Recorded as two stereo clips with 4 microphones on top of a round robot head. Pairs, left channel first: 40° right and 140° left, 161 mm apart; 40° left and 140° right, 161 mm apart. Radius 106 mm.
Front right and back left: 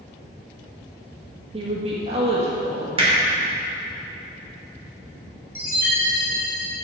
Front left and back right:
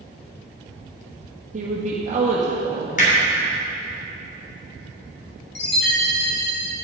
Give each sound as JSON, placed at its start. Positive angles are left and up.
{"t": 1.5, "sound": "a woman speaking", "azimuth_deg": -175, "distance_m": 1.5}
{"t": 3.0, "sound": "hammering", "azimuth_deg": 85, "distance_m": 3.0}
{"t": 5.5, "sound": "a chime", "azimuth_deg": 60, "distance_m": 3.5}